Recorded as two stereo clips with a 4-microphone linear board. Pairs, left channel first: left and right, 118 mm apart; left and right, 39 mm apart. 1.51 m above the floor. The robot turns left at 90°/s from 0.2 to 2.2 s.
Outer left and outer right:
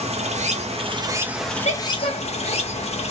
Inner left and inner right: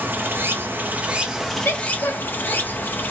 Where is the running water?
65° right, 0.7 m; by 3.1 s 115° left, 0.7 m.